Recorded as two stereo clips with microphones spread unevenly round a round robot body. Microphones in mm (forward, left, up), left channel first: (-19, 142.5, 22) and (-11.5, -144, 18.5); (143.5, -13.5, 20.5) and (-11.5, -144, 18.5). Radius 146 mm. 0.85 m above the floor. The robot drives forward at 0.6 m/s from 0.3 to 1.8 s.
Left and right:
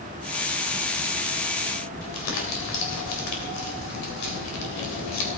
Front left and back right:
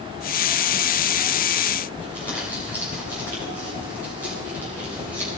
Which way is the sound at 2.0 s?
125° left.